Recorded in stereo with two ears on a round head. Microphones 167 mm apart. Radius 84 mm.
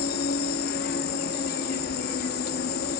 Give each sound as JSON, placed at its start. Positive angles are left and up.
{"t": 0.0, "sound": "an insect", "side_deg": 50, "distance_m": 0.8}